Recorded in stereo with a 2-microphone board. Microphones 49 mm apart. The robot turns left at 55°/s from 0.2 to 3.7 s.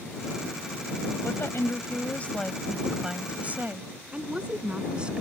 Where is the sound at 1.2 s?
85° left; by 3.9 s 50° right.